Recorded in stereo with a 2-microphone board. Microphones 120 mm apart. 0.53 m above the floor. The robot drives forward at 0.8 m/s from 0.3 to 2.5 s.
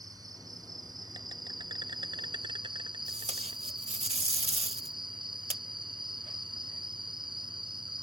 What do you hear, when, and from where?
0.0 s an insect: 30° right (ahead or behind); by 8.0 s 40° right (ahead or behind)
3.1 s tape being pulled: 60° right (ahead or behind)